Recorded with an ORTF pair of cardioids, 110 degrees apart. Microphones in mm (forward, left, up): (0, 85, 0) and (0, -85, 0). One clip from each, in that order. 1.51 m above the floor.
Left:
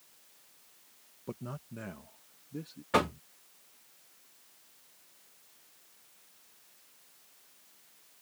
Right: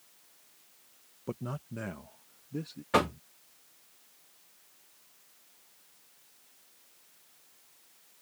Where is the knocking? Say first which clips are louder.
Right 1 dB; 10° right.